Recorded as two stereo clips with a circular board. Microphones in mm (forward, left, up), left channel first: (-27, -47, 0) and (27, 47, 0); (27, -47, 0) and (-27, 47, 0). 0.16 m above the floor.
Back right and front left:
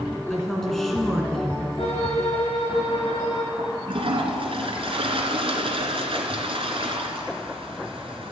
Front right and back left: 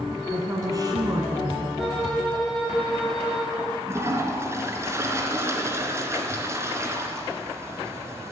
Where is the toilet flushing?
60° left, 2 m.